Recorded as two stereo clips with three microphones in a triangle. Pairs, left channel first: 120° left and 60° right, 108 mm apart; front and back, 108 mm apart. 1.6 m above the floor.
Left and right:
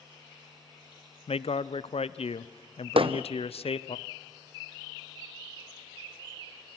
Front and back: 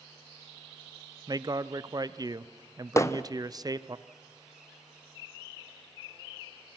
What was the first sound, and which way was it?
A man speaking, 130° left.